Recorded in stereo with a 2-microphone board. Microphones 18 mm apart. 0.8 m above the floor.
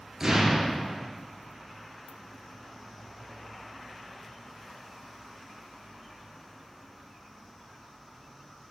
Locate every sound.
0.2 s an explosion: 25° right (ahead or behind), 3 m